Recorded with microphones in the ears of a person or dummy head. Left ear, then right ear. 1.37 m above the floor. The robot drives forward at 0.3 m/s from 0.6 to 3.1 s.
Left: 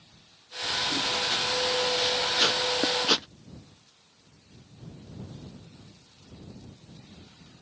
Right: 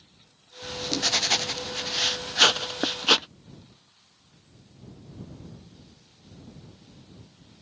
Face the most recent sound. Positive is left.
turn(degrees=-30)  # may be behind; listen again after turning